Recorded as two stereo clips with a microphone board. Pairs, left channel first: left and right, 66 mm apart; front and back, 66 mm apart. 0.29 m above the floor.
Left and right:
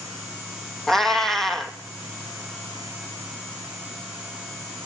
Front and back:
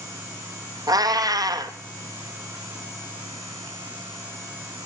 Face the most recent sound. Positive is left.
turn(degrees=175)